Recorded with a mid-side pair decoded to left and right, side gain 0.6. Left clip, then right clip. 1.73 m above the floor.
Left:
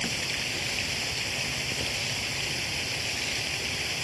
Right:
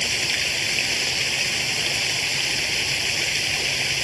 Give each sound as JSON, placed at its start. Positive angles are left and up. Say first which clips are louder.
{"t": 0.0, "sound": "running water", "louder": "right 7 dB", "azimuth_deg": -40}